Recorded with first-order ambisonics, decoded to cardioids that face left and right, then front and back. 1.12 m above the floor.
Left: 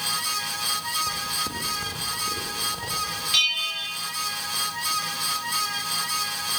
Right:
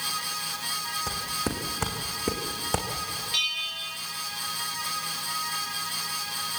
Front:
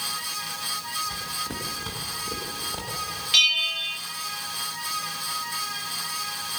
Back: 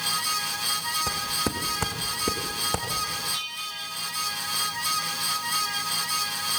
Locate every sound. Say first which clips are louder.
1.1 s footsteps: left 3 dB, back 3 dB; 160° right, 4 m; by 2.9 s 125° right, 4 m
3.3 s a bell: left 6 dB, front 12 dB; 25° left, 1.2 m